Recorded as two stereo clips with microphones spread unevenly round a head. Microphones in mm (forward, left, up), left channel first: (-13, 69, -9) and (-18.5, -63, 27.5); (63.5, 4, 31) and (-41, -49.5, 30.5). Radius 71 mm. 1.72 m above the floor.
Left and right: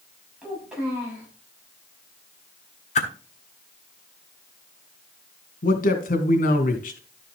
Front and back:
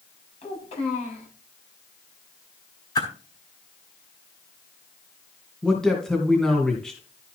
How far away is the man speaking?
About 2.5 m.